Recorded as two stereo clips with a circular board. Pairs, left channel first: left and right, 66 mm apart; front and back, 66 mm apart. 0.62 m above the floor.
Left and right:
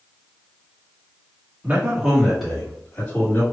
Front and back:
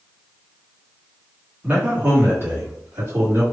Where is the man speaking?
130° right, 1.5 m; by 3.4 s 145° left, 2.5 m.